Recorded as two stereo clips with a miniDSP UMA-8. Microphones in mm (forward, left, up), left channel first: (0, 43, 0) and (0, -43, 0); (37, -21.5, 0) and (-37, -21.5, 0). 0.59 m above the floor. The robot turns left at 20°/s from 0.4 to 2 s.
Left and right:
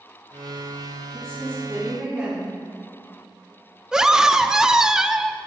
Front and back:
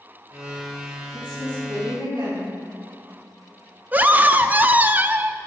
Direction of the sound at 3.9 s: 165° right.